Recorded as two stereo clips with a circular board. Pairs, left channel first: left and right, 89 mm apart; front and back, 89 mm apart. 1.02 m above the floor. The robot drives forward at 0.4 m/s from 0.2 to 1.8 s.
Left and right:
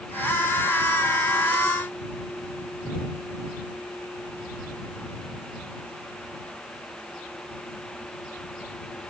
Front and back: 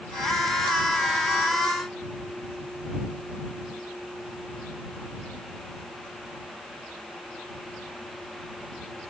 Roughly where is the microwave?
No microwave in this recording.